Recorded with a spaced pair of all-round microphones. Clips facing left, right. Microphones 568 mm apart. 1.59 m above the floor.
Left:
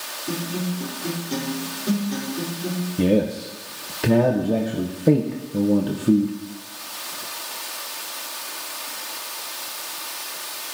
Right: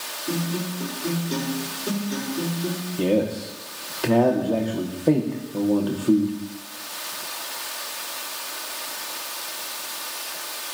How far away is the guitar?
About 7.5 m.